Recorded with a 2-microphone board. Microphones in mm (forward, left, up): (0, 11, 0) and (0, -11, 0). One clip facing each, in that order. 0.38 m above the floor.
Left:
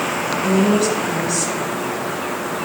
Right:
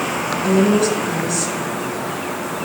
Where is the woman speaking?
65° left (ahead or behind), 3 m.